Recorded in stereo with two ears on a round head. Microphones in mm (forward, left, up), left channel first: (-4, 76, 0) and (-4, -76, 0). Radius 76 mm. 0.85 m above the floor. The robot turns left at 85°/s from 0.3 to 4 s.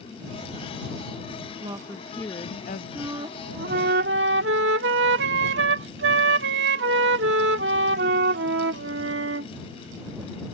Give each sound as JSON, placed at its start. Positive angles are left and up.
{"t": 1.6, "sound": "a woman speaking", "azimuth_deg": -145}
{"t": 3.0, "sound": "a flute", "azimuth_deg": -5}